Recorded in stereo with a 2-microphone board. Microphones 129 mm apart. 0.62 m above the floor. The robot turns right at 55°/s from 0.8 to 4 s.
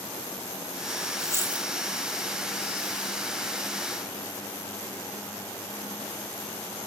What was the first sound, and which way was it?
A dropped coin, 30° right (ahead or behind).